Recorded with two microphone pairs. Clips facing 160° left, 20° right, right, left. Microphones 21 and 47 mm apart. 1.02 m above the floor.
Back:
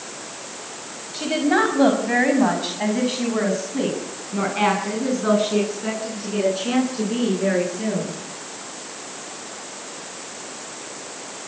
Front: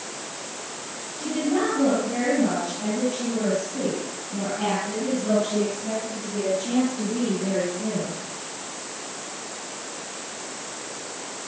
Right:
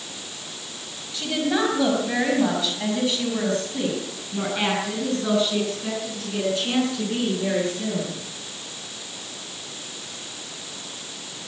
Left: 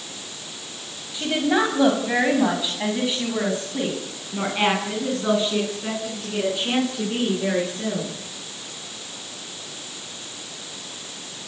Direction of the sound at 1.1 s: 155° left.